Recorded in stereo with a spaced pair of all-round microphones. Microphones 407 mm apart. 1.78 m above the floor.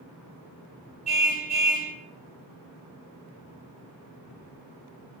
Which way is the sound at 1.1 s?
80° right.